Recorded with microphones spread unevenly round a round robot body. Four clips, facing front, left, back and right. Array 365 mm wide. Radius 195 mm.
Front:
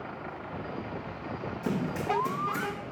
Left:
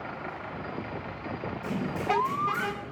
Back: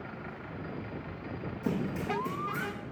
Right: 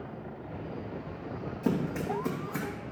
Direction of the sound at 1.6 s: 55° right.